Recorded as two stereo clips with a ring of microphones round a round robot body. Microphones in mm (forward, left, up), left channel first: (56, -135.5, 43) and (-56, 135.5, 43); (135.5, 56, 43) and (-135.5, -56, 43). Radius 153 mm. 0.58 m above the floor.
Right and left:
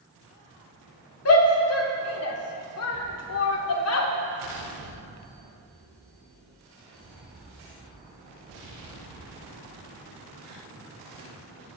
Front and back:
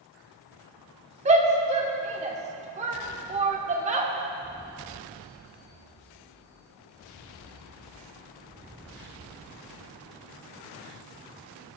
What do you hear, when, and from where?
1.2 s a shout: 95° right, 1.8 m